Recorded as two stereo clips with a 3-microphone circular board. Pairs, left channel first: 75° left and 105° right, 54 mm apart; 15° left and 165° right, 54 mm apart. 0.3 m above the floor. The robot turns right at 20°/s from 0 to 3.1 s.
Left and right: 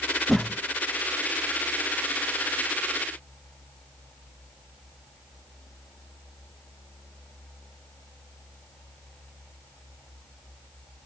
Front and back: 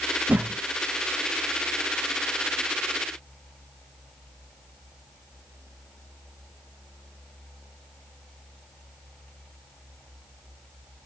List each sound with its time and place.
0.3 s a whoosh: 155° left, 0.5 m; by 0.6 s 160° left, 0.5 m